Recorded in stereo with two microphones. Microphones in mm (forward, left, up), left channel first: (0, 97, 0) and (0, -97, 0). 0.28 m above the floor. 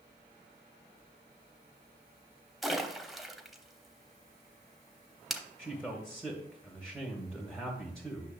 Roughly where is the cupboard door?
No cupboard door in this recording.